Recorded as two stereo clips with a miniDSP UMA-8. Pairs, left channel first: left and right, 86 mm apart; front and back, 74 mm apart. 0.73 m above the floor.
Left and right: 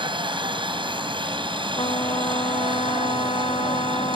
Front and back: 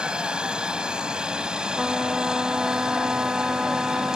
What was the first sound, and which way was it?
A helicopter, 100° right.